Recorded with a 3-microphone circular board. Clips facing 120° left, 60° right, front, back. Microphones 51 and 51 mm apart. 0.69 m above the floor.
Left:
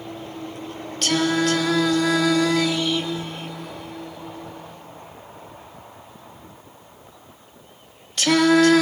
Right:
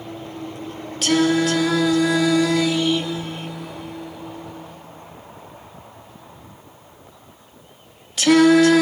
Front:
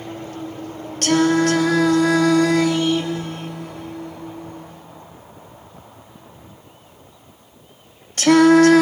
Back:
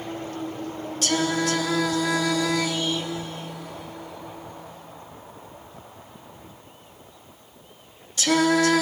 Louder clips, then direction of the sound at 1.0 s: Right 3 dB, front 8 dB; 25° left.